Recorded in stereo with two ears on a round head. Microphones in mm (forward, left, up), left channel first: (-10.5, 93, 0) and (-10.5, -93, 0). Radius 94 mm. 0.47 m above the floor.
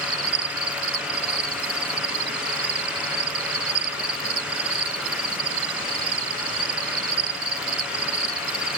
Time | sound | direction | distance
0.0 | an insect | 45° right (ahead or behind) | ?